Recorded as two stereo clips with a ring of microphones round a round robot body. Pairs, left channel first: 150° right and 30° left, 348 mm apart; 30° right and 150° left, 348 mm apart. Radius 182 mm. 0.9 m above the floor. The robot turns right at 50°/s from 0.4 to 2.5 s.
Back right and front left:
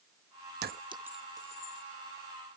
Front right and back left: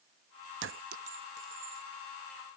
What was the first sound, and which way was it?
A clink, 90° left.